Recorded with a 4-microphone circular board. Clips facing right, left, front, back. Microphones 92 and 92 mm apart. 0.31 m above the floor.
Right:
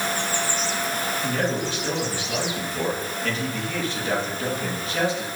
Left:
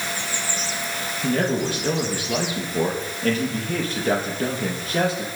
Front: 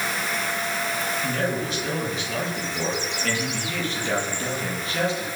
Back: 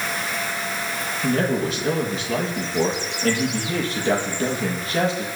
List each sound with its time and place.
1.2 s a man speaking: 130° left, 8 m